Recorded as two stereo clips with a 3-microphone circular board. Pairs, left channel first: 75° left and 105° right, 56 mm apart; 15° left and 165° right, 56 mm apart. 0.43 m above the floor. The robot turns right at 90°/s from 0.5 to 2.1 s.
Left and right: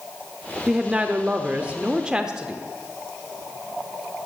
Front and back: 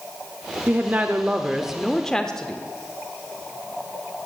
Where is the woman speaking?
175° right, 0.7 m; by 2.6 s 45° right, 0.7 m.